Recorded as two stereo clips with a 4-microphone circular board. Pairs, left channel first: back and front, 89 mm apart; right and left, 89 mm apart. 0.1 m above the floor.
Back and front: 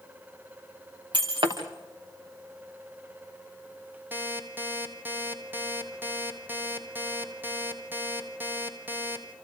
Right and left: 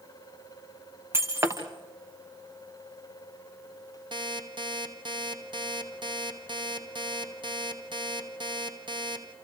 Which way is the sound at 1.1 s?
30° left.